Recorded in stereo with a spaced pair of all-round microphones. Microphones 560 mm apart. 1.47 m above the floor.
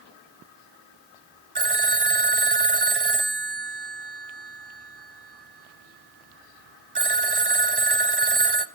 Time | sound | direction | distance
1.6 | a phone ringing | 45° right (ahead or behind) | 1.0 m